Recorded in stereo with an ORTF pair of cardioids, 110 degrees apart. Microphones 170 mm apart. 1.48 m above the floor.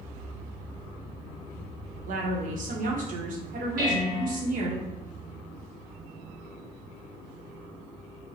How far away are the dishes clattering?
About 1.5 m.